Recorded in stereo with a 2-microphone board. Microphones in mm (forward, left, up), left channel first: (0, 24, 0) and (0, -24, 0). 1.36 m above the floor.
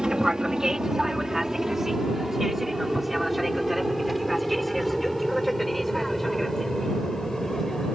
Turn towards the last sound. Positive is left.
turn(degrees=5)  # may be behind; listen again after turning